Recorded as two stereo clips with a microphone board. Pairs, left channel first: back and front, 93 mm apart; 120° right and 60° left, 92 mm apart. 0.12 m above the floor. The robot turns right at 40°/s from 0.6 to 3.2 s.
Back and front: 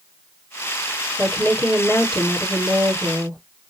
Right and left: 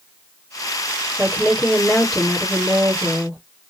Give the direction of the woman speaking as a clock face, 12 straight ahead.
8 o'clock.